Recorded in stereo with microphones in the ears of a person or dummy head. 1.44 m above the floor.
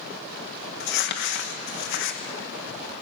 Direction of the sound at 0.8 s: 65° left (ahead or behind).